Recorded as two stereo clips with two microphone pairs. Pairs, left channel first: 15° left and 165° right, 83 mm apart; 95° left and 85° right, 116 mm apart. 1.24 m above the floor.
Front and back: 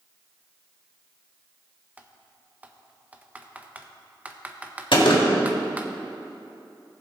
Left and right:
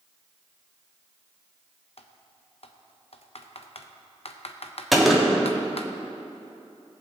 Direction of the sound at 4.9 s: 5° left.